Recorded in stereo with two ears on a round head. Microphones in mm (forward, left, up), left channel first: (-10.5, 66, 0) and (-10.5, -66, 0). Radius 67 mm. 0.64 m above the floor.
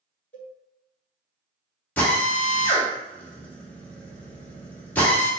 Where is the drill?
15° left (ahead or behind), 1.4 m.